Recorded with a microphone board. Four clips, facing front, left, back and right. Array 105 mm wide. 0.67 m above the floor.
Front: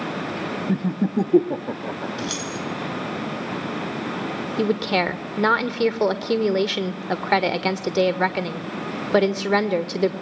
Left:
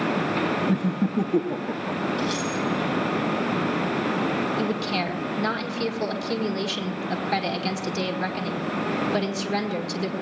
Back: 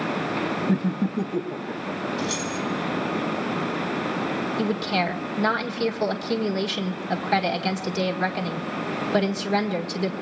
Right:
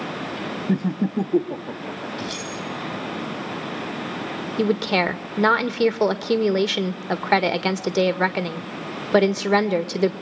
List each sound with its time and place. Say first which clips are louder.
0.7 s laughter: right 1 dB, front 4 dB; 100° right, 0.7 m; by 2.1 s 10° left, 1.3 m
2.2 s keys jangling: left 5 dB, back 1 dB; straight ahead, 6.5 m
4.6 s a woman speaking: right 5 dB, front 6 dB; 55° right, 1.7 m